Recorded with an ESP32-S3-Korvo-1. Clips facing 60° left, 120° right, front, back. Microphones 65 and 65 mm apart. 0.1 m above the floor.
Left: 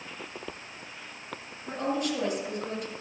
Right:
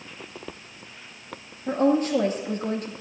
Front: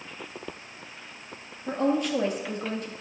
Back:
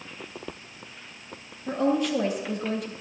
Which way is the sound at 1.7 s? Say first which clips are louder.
Right 9 dB, back 1 dB; 100° right.